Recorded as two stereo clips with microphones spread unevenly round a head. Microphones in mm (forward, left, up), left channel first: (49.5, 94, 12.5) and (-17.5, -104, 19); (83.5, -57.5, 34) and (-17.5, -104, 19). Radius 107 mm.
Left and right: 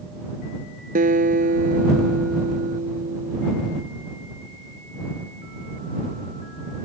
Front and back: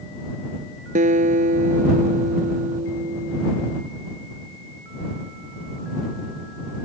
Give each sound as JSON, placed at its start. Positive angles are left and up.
{"t": 0.9, "sound": "a guitar", "azimuth_deg": -165}